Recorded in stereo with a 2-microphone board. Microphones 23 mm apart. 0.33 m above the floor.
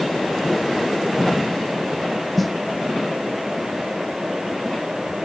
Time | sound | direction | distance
2.4 | a snare drum | centre (ahead or behind) | ?